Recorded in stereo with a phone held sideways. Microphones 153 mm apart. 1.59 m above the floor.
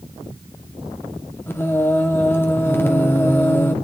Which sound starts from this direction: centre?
Singing, at 1.5 s.